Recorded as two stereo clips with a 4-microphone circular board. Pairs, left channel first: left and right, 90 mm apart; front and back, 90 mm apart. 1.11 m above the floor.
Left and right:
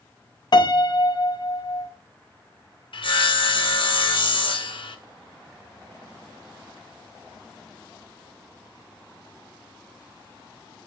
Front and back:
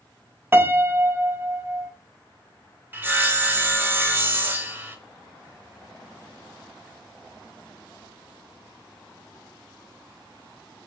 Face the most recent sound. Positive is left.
turn(degrees=110)